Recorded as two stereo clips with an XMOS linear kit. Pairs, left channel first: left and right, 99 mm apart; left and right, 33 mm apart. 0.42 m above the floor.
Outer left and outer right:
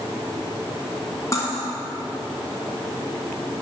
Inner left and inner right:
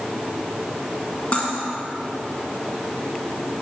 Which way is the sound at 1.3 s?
35° left (ahead or behind).